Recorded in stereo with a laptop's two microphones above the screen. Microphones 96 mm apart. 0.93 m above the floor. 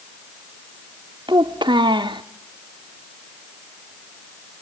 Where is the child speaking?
55° right (ahead or behind), 1.0 m.